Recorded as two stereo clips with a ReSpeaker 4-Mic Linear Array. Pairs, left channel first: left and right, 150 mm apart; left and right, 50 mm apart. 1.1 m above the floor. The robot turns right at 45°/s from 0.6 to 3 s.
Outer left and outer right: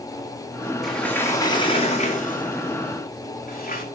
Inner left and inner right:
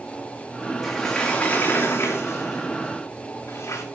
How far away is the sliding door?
About 2.5 m.